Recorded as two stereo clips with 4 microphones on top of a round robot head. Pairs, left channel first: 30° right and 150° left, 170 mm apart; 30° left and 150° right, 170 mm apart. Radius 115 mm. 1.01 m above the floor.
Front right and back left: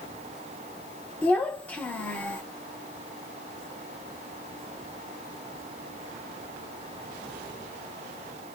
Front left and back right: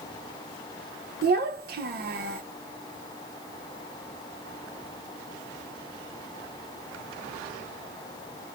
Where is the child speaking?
115° right, 0.9 m.